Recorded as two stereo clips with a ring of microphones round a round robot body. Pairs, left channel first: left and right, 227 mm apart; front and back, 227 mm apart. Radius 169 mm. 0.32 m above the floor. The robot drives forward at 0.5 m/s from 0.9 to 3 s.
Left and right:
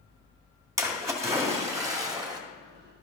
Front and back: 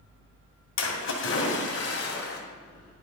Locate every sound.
0.8 s a splash: 15° right, 2.5 m; by 2.4 s 25° right, 1.8 m